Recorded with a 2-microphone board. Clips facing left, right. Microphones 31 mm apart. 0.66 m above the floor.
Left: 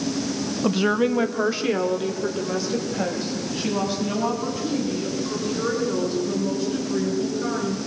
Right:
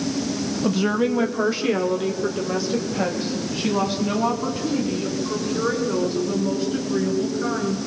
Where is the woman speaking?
20° left (ahead or behind), 0.8 m; by 7.8 s 15° right (ahead or behind), 9.5 m.